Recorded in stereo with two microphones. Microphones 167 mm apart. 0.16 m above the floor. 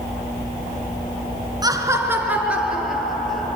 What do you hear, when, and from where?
1.6 s laughter: 25° right (ahead or behind), 2 m; by 3.6 s centre (ahead or behind), 4 m